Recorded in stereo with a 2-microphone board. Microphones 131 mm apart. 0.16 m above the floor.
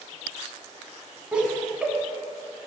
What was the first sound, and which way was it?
Laughter, 10° right (ahead or behind).